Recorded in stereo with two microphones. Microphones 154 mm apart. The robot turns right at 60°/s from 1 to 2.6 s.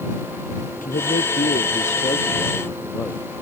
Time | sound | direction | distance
0.8 | a man speaking | 75° left | ?